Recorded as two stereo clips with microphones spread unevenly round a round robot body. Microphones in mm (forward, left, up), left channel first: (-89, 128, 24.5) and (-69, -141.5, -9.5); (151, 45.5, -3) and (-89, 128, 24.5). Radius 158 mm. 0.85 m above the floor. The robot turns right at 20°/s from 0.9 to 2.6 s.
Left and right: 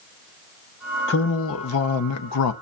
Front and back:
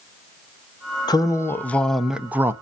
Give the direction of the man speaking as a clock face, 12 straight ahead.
10 o'clock.